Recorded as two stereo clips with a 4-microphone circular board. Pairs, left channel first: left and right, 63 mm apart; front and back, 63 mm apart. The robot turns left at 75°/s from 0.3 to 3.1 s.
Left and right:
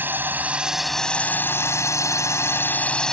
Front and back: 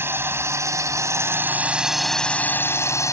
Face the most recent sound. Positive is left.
turn(degrees=10)